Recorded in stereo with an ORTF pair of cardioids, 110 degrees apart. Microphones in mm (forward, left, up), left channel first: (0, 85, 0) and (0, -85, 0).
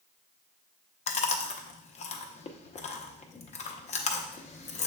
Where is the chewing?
40° left, 0.7 m.